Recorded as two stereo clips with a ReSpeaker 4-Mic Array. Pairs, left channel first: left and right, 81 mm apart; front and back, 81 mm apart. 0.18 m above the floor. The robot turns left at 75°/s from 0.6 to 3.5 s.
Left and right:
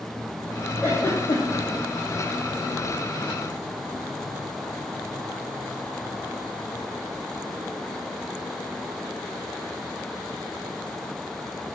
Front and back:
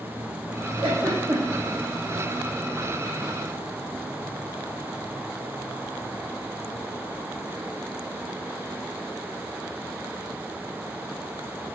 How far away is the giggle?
About 3.5 m.